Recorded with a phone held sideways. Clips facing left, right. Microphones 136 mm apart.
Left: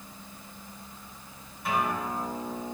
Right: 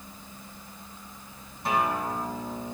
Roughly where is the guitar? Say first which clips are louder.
Right 2 dB; right.